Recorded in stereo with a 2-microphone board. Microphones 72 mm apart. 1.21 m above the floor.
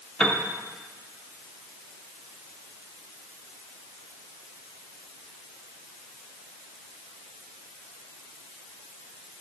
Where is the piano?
10° left (ahead or behind), 0.8 m.